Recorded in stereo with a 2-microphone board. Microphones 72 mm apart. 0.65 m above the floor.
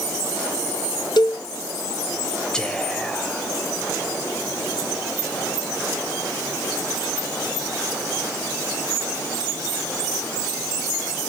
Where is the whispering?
10° left (ahead or behind), 3 m.